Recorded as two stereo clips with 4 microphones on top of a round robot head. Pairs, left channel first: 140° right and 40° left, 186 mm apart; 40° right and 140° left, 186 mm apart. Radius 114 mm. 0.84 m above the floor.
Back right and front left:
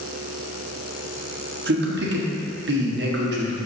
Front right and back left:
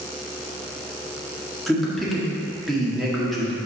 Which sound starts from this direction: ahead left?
A man speaking, at 1.7 s.